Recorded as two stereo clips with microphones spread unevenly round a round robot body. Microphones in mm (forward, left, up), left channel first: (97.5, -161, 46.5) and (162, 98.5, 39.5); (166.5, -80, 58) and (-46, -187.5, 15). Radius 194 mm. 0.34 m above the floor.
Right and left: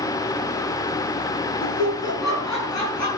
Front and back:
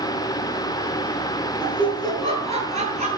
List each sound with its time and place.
1.6 s laughter: 85° right, 7.5 m; by 3.1 s 95° right, 8.5 m